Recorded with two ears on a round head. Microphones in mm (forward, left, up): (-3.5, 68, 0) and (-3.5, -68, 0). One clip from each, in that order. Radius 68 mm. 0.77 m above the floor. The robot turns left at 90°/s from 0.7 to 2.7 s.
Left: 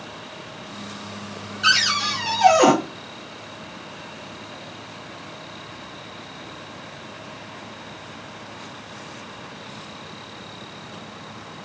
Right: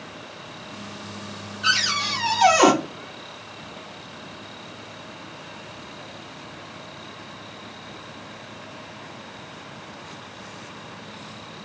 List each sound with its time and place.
1.6 s a cupboard door: 35° left, 1.4 m; by 2.7 s 65° right, 1.4 m